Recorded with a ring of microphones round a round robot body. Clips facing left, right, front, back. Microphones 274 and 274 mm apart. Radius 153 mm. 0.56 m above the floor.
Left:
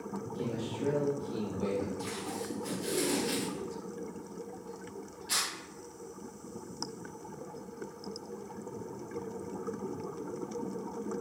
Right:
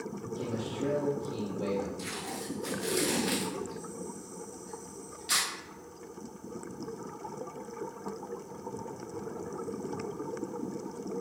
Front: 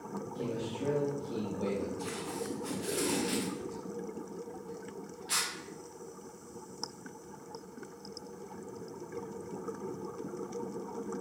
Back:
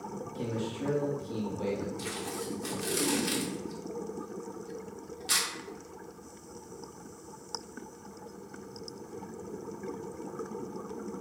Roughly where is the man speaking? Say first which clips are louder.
Right 1 dB, back 2 dB; behind.